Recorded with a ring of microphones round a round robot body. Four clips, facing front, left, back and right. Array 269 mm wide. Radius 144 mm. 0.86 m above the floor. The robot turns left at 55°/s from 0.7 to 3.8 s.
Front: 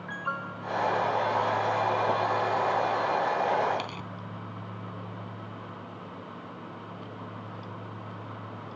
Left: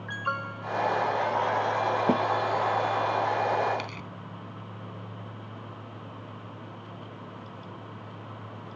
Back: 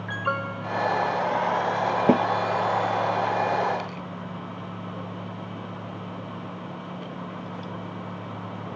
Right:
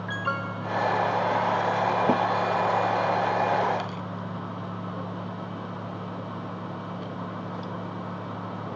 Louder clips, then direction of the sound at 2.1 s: Right 1 dB, back 7 dB; 175° left.